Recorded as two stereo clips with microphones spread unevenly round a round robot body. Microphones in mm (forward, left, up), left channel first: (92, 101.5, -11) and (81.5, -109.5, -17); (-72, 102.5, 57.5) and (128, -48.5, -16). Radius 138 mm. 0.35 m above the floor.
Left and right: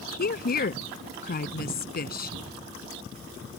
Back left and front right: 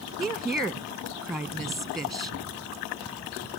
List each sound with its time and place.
0.2 s a woman speaking: 45° left